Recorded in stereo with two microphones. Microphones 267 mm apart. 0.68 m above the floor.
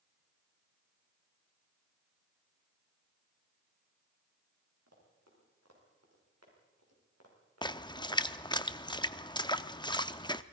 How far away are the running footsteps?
About 8 m.